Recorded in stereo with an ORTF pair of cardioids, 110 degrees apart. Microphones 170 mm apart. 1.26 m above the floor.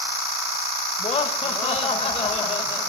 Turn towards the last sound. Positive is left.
turn(degrees=40)